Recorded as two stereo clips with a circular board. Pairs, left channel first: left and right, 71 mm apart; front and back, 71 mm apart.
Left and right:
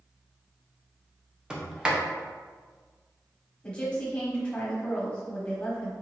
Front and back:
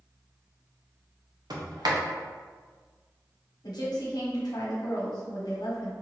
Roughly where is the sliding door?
Behind.